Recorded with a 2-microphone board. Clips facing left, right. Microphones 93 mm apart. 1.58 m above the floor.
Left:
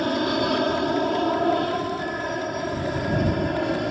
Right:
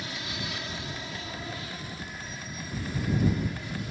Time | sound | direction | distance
0.0 | an aircraft | 60° left (ahead or behind) | ?